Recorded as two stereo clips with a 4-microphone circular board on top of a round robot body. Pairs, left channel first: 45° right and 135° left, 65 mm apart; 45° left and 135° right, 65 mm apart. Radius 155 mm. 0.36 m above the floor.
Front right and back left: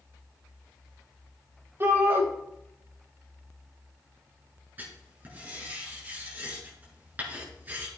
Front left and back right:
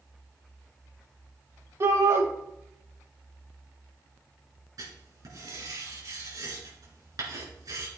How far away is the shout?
About 3.5 m.